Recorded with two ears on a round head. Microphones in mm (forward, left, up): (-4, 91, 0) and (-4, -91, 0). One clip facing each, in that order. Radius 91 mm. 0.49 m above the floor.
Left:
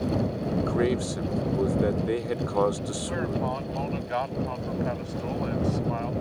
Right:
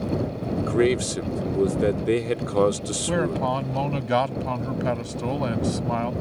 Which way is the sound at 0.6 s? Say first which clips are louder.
Right 5 dB; 35° right (ahead or behind).